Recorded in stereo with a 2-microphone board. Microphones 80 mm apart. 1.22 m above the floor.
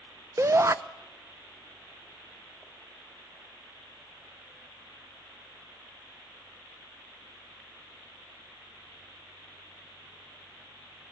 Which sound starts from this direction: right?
A shout, at 0.4 s.